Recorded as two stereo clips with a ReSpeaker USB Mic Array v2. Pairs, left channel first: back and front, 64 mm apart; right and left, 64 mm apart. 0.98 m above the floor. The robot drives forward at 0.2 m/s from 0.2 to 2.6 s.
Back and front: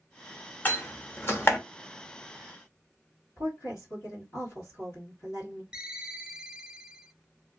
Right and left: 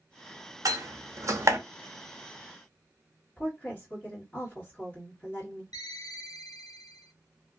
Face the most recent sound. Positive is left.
turn(degrees=-80)